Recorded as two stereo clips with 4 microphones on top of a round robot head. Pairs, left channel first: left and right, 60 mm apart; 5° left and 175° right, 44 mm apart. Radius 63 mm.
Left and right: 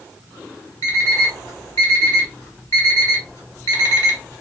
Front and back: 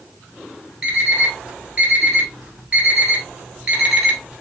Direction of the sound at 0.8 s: 135° left.